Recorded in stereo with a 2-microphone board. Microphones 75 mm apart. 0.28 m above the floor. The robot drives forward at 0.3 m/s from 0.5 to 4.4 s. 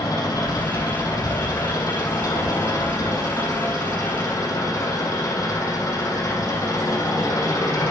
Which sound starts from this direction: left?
An engine running, at 0.0 s.